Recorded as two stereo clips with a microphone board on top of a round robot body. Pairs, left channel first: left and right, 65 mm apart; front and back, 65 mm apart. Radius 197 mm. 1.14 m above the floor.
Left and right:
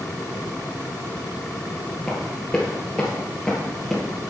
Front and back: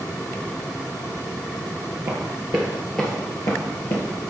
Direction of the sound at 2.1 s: 165° left.